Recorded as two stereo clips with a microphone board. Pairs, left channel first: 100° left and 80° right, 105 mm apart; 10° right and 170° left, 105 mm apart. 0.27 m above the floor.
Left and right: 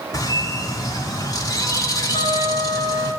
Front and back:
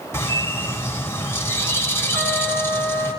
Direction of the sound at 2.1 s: 110° left.